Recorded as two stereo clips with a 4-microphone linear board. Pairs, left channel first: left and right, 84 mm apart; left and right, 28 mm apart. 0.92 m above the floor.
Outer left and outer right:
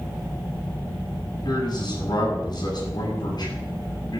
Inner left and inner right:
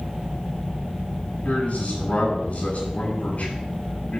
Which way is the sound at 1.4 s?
60° left (ahead or behind).